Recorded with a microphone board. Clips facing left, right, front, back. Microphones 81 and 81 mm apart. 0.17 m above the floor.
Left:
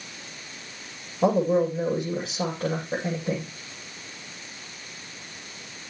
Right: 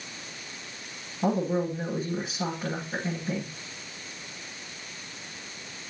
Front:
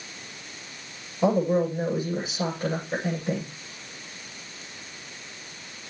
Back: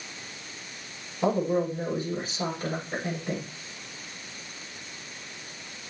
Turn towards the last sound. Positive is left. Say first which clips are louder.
# left 5 dB, front 3 dB
turn(degrees=75)